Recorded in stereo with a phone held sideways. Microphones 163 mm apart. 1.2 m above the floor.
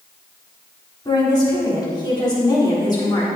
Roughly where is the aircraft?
No aircraft in this recording.